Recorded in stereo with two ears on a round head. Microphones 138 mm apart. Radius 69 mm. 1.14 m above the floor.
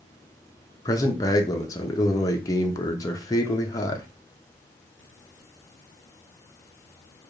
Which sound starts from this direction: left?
A man speaking, at 0.8 s.